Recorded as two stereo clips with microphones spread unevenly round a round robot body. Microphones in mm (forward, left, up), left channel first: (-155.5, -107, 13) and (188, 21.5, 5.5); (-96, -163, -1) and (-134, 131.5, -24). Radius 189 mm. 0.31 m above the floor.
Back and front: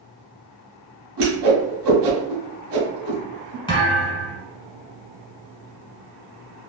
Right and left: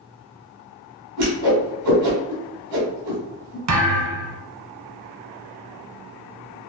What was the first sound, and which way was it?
A whoosh, 70° left.